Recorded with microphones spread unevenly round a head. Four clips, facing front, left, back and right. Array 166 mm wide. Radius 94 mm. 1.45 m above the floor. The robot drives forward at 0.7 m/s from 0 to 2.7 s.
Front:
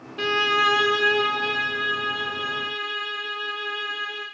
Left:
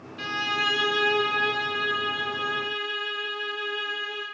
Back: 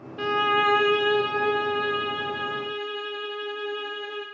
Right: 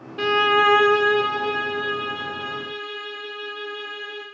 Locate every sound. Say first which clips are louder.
0.2 s a violin: right 11 dB, even; 50° right, 0.6 m; by 4.2 s 165° right, 1.5 m